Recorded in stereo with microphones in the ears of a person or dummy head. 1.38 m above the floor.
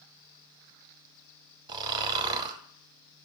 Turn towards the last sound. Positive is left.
turn(degrees=-30)  # may be behind; listen again after turning